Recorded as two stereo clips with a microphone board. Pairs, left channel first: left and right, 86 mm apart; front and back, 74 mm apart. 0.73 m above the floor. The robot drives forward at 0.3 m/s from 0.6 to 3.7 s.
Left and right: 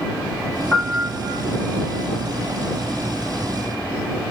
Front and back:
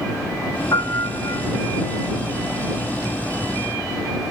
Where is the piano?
10° left, 1.2 m.